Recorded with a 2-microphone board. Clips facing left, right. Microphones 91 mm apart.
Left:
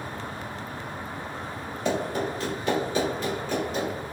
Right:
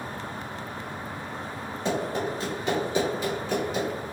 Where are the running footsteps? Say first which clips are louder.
Left 1 dB; 30° right (ahead or behind), 1.7 m; by 4.0 s centre (ahead or behind), 1.6 m.